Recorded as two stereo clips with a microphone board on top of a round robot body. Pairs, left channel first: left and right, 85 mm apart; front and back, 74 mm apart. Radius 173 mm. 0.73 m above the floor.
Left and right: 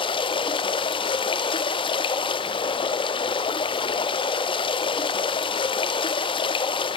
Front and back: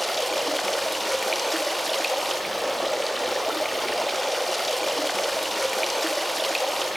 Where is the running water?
90° left, 1.0 m.